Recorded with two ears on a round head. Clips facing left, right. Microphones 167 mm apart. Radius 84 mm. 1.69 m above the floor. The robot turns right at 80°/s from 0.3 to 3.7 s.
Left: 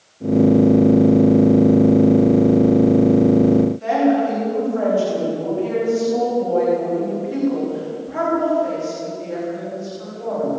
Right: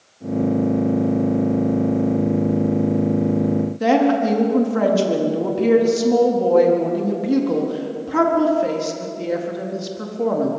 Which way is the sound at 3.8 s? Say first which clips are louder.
Right 1 dB; 80° right.